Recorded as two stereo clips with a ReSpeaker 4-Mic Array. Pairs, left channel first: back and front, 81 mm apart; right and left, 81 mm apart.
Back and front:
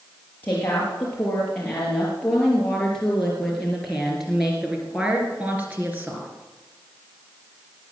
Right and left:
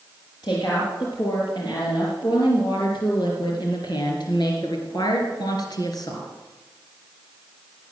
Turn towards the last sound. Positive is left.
turn(degrees=-60)